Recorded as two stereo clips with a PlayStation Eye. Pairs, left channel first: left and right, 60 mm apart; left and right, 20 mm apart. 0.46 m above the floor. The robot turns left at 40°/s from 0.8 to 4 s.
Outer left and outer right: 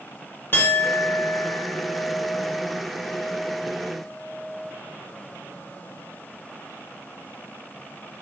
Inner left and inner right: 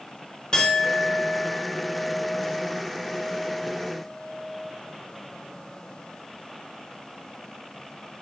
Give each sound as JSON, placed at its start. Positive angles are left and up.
{"t": 0.5, "sound": "a clink", "azimuth_deg": 135, "distance_m": 1.2}